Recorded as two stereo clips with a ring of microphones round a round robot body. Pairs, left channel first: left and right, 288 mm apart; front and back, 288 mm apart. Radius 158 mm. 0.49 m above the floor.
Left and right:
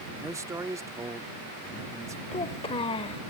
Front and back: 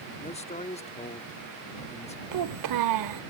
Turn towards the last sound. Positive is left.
turn(degrees=165)